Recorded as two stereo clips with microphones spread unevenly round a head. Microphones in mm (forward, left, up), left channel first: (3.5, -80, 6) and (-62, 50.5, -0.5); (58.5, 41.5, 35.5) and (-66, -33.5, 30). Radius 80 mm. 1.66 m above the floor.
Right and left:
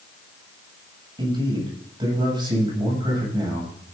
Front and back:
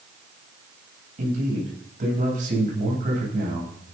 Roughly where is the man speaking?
Behind.